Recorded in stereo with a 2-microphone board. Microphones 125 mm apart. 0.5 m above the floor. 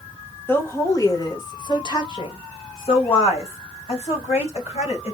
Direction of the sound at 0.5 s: 20° left (ahead or behind).